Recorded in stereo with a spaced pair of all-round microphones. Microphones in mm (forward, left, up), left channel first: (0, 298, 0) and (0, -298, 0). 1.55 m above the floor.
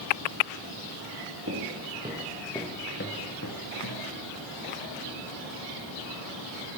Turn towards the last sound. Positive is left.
turn(degrees=45)  # may be behind; listen again after turning